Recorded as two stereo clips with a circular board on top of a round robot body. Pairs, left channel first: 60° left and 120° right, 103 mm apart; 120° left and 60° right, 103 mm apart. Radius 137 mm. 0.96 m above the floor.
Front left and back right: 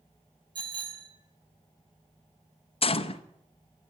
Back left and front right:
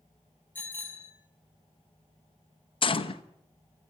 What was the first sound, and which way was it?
A bicycle bell, 165° right.